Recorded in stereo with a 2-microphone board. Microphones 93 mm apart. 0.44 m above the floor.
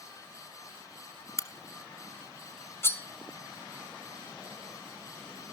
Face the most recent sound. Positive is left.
turn(degrees=25)  # may be behind; listen again after turning